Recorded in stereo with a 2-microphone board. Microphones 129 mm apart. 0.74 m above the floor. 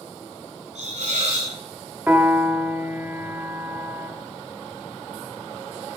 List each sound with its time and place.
0.8 s a hiss: 65° right (ahead or behind), 4 m
2.1 s a piano: 15° right (ahead or behind), 2.0 m